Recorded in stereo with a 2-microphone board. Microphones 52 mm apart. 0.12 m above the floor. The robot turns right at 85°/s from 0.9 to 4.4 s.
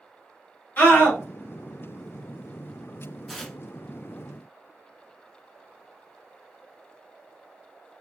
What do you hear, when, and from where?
0.8 s a scream: 40° left (ahead or behind), 1.9 m; by 1.2 s 35° left (ahead or behind), 1.9 m
3.3 s tearing paper: centre (ahead or behind), 0.6 m; by 3.6 s 15° left (ahead or behind), 0.6 m